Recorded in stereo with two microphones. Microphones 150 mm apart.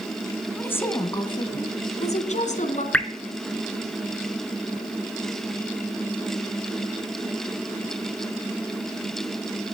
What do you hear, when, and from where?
0.6 s a woman speaking: 10° left (ahead or behind), 2.0 m; by 2.8 s 55° left (ahead or behind), 2.5 m
2.9 s dripping: 10° left (ahead or behind), 0.9 m